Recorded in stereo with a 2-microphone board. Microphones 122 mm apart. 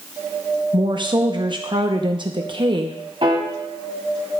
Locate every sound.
0.7 s a woman speaking: 40° right (ahead or behind), 0.7 m
3.2 s a piano: 50° right (ahead or behind), 1.3 m